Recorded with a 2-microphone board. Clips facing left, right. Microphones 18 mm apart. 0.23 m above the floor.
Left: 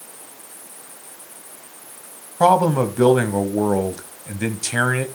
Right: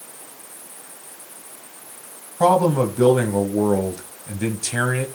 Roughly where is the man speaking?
Left.